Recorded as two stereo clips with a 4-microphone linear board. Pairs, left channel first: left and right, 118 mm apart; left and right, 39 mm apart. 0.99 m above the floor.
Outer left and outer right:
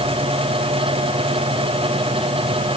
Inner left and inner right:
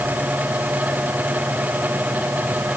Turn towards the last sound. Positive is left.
No sound to turn to.